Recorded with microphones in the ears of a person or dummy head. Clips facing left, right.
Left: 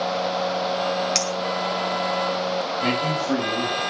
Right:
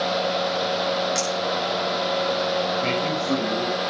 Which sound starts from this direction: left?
A clink, at 1.1 s.